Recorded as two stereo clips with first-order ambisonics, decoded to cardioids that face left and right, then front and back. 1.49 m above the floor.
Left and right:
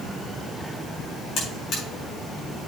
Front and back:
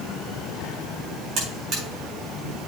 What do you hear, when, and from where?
1.4 s a buzzer: 135° left, 4.5 m